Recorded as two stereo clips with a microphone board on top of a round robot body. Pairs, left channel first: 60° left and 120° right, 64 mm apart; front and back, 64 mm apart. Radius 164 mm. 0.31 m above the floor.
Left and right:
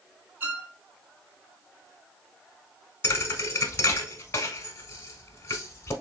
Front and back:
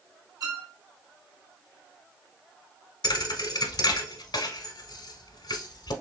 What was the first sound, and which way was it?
A violin, straight behind.